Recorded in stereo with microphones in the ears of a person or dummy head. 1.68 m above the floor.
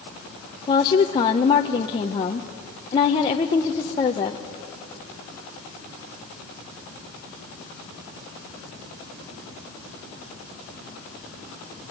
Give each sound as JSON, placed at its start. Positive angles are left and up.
{"t": 0.7, "sound": "a woman speaking", "side_deg": 20, "distance_m": 0.9}